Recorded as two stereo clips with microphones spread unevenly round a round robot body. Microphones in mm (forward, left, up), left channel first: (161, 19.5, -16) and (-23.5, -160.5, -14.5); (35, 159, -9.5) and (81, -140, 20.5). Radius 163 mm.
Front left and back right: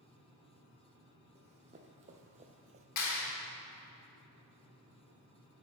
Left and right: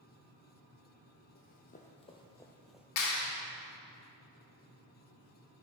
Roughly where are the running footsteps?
Behind.